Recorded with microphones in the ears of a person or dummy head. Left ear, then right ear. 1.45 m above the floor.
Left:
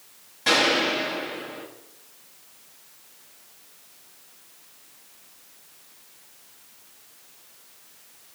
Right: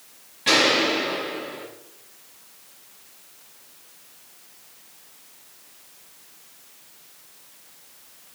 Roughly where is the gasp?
No gasp in this recording.